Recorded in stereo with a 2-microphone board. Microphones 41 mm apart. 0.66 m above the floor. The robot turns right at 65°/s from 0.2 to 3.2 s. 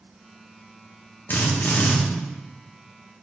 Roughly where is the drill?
Left.